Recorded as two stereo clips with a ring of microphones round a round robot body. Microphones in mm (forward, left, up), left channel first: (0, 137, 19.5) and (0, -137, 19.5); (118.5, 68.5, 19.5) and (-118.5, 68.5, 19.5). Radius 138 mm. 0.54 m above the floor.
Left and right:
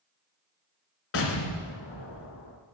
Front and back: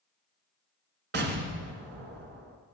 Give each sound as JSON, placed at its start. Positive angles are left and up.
{"t": 1.1, "sound": "an explosion", "azimuth_deg": 135, "distance_m": 1.6}